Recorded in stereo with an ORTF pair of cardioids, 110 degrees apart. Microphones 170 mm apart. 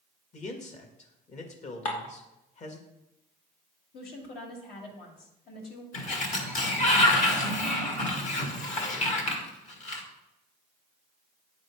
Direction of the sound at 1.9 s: 45° left.